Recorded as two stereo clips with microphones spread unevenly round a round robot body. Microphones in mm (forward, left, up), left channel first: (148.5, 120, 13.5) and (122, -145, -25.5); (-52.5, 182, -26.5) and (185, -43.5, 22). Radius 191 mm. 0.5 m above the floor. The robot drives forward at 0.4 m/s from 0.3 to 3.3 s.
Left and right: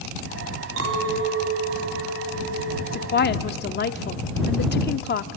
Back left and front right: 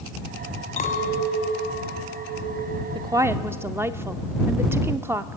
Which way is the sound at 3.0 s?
35° left.